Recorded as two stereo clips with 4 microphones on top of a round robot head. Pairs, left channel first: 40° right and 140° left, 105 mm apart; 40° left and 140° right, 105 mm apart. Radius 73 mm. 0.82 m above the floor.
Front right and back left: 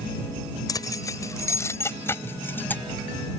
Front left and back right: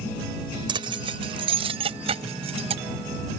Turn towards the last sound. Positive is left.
turn(degrees=-110)